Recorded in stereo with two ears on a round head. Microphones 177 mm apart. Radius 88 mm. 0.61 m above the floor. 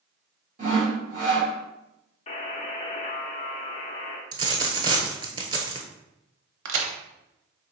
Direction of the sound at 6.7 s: 70° right (ahead or behind).